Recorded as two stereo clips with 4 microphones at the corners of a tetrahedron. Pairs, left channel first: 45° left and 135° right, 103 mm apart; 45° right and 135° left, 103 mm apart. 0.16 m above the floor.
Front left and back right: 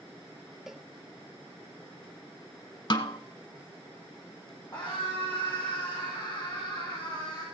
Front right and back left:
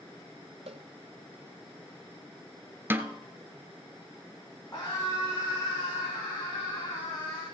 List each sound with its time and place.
0.7 s a cowbell: 140° left, 0.6 m
2.9 s a snare drum: 70° left, 1.0 m
4.7 s a scream: straight ahead, 6.5 m